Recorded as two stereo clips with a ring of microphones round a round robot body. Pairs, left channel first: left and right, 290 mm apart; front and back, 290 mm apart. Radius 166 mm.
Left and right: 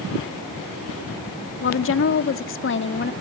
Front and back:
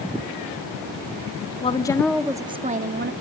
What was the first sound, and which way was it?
A woman speaking, 60° left.